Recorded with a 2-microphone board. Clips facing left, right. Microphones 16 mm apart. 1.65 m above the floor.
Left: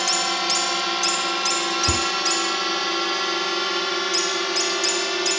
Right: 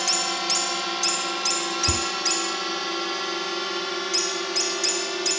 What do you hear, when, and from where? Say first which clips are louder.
0.0 s a drone: left 3 dB; 15° left (ahead or behind); by 5.4 s 20° left (ahead or behind)
1.9 s a cupboard door: left 3 dB; 25° left (ahead or behind)